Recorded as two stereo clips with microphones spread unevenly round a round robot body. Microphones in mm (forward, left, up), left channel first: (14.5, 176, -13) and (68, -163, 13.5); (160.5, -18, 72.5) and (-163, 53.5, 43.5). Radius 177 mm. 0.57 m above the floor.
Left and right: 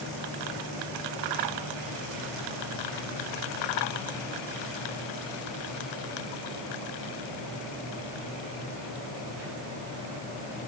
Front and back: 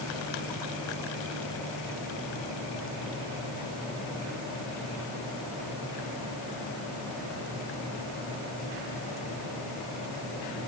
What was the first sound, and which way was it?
Only background noise.